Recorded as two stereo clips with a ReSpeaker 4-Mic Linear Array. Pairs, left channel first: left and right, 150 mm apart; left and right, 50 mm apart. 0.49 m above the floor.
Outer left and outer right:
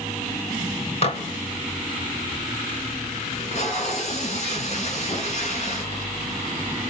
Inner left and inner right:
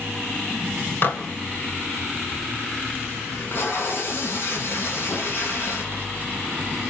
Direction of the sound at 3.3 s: 50° left (ahead or behind).